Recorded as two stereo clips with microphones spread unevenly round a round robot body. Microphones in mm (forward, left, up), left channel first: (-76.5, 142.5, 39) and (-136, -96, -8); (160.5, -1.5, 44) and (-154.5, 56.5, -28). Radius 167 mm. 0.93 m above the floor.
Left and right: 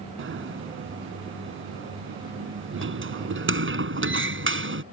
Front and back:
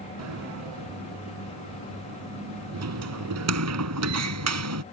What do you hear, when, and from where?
0.2 s a sliding door: 145° right